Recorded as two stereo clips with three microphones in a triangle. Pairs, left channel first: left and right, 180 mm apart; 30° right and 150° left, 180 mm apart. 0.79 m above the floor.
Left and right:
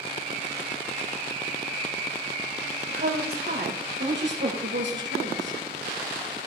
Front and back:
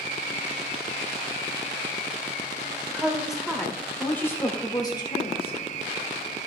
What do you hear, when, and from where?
2.9 s a woman speaking: 125° right, 2.5 m; by 5.6 s 90° right, 2.5 m